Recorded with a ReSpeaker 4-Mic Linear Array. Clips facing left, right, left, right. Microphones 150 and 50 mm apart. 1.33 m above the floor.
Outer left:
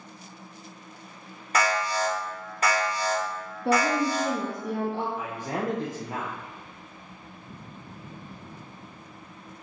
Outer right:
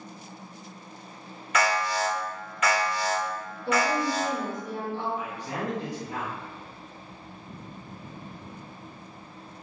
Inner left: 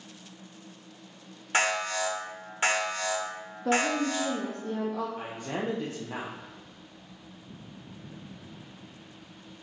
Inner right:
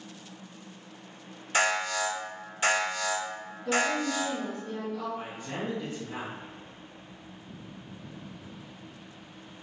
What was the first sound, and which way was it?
An alarm, 35° left (ahead or behind).